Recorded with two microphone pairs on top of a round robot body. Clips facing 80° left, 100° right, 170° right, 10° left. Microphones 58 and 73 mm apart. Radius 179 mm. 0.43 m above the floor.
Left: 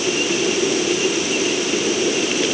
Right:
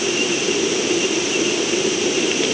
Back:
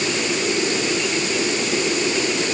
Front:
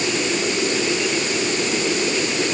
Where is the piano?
No piano in this recording.